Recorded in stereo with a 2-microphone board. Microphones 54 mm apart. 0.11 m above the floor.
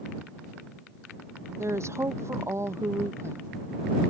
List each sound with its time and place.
1.6 s a woman speaking: 60° right (ahead or behind)